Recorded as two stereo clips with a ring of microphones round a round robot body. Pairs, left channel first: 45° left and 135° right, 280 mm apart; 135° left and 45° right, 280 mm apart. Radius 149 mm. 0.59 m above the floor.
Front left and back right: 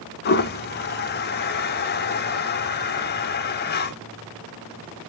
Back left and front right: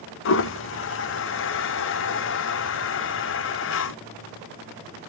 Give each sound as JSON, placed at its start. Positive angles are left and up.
{"t": 0.2, "sound": "a toilet flushing", "azimuth_deg": 95, "distance_m": 0.5}